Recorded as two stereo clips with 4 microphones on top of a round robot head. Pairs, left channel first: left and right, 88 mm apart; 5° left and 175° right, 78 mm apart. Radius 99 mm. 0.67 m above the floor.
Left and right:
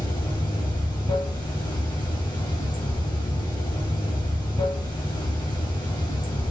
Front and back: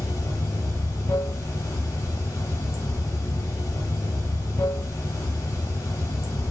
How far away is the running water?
About 0.8 m.